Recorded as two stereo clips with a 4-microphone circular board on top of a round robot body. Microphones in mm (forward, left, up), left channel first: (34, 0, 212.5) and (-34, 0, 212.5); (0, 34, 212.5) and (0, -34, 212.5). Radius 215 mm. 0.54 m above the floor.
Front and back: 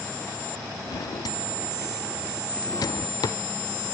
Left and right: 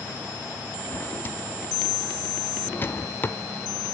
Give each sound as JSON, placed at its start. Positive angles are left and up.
{"t": 0.8, "sound": "a drawer", "azimuth_deg": 30, "distance_m": 0.6}